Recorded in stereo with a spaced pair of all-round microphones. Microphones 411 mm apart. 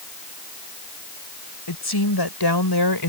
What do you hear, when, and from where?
1.7 s a woman speaking: 85° left; by 3.1 s 75° left (ahead or behind)